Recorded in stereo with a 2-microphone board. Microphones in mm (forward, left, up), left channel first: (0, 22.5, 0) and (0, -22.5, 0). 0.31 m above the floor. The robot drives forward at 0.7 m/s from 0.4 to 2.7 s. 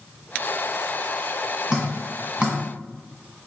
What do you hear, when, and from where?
1.7 s dripping: 15° right (ahead or behind), 1.9 m; by 2.6 s 20° right (ahead or behind), 1.3 m